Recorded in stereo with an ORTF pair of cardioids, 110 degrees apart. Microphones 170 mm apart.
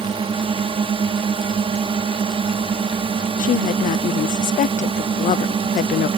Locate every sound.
0.0 s a drone: 30° right
3.4 s a woman speaking: 50° left